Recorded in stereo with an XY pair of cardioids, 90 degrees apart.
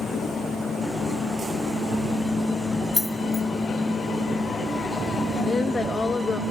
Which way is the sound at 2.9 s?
20° left.